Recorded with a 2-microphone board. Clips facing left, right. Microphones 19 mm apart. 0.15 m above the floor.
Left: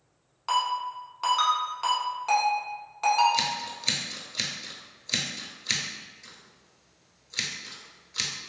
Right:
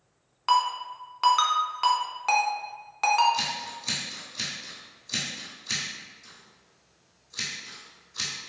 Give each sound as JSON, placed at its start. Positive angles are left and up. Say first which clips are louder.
{"t": 0.5, "sound": "a ringtone", "louder": "right 3 dB", "side_deg": -25, "distance_m": 0.6}
{"t": 3.3, "sound": "scissors", "louder": "left 2 dB", "side_deg": 30, "distance_m": 0.7}